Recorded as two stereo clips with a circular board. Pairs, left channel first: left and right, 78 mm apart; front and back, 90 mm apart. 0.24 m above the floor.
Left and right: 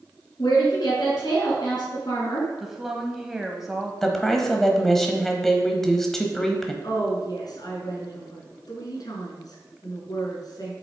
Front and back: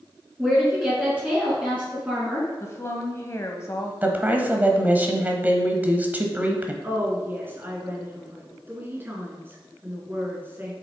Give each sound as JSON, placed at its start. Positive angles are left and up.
{"t": 0.4, "sound": "a woman speaking", "azimuth_deg": 105, "distance_m": 3.0}
{"t": 2.6, "sound": "a woman speaking", "azimuth_deg": -5, "distance_m": 1.1}
{"t": 4.0, "sound": "a woman speaking", "azimuth_deg": 165, "distance_m": 1.2}
{"t": 6.8, "sound": "a woman speaking", "azimuth_deg": 115, "distance_m": 2.5}